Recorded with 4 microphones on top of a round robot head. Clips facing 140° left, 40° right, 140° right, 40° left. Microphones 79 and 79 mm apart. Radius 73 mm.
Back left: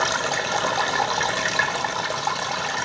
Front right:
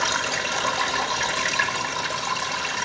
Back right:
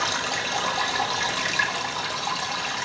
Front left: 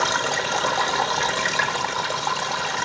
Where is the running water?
95° left, 0.7 m.